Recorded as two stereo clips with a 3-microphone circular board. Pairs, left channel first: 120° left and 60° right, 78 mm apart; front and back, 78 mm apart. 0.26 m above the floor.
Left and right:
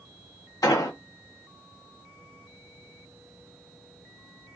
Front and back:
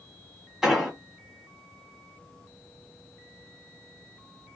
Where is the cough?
No cough in this recording.